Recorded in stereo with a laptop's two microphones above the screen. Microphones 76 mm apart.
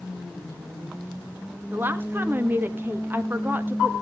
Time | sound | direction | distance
1.7 | a woman speaking | 25° right (ahead or behind) | 1.2 m